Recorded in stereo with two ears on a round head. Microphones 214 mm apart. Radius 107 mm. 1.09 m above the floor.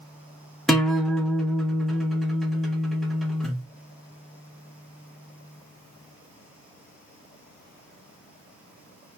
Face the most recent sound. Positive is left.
turn(degrees=0)  # may be behind; listen again after turning